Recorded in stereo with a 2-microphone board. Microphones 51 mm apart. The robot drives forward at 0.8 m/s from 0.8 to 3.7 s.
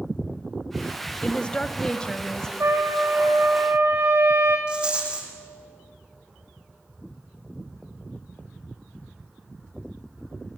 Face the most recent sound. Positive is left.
turn(degrees=-20)  # may be behind; listen again after turning